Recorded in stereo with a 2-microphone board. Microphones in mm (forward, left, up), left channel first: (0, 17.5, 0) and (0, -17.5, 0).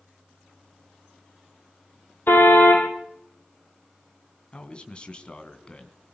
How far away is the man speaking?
About 2.5 m.